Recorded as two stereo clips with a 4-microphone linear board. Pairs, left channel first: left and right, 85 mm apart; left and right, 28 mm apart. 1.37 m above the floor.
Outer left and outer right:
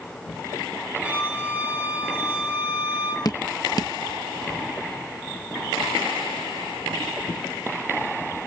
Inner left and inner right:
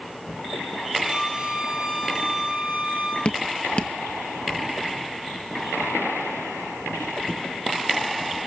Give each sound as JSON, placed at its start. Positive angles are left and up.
{"t": 1.0, "sound": "a flute", "side_deg": -15, "distance_m": 5.5}
{"t": 3.2, "sound": "dripping", "side_deg": 45, "distance_m": 1.2}